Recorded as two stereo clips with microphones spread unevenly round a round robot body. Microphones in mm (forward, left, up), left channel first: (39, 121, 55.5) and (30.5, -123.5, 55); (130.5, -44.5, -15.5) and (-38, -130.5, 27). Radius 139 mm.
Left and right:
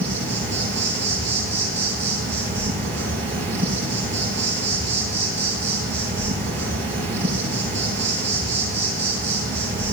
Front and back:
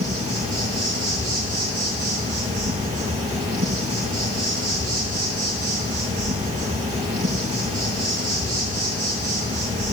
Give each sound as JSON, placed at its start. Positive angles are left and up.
{"t": 0.0, "sound": "an insect", "azimuth_deg": 175, "distance_m": 8.0}